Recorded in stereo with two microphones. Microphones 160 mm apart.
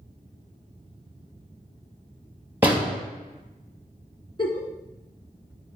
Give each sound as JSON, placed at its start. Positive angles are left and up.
{"t": 2.6, "sound": "a door slam", "side_deg": -10, "distance_m": 3.0}
{"t": 4.4, "sound": "a giggle", "side_deg": 35, "distance_m": 1.9}